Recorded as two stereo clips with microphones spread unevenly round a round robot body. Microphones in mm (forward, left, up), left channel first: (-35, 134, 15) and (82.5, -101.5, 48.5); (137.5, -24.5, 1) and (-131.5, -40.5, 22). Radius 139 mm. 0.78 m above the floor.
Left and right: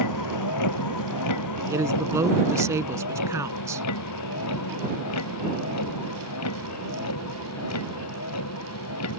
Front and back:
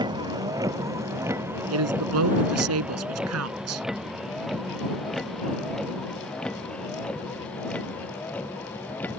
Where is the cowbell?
No cowbell in this recording.